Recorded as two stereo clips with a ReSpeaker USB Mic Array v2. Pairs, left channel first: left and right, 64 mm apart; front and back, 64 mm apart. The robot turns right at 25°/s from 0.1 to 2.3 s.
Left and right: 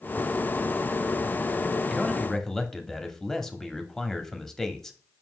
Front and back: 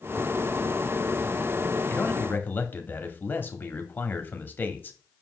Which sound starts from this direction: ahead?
A man speaking, at 1.9 s.